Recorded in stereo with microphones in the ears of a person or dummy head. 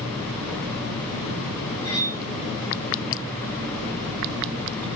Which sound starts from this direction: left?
Cutlery clinking, at 1.8 s.